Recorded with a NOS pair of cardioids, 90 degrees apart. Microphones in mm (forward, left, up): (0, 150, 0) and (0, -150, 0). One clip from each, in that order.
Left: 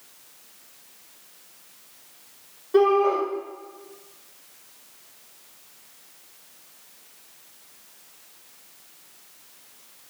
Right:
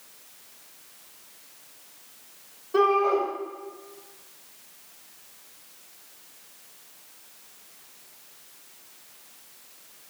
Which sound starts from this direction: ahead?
A shout, at 2.7 s.